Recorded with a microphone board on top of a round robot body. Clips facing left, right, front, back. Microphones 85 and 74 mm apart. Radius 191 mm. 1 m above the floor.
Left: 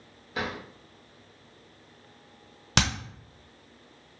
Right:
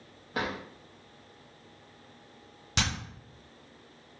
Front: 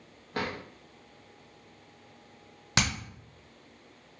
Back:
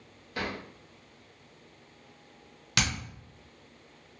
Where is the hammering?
65° left, 0.5 m.